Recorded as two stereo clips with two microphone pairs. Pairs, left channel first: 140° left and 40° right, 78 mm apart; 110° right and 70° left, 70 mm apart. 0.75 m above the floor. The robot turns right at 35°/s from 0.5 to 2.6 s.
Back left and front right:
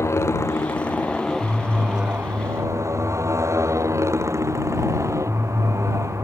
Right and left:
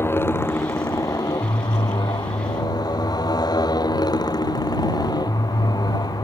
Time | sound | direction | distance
0.0 | a motorcycle | 165° right | ?